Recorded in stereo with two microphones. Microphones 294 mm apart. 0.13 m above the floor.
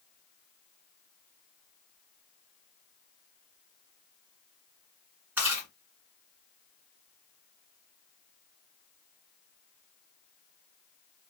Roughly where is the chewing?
Centre.